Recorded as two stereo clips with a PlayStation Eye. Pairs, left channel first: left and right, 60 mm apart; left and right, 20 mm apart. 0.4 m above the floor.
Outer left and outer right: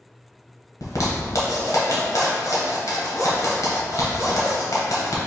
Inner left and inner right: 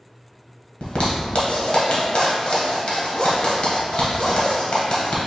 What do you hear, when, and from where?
0.8 s a zipper: 65° left (ahead or behind), 1.1 m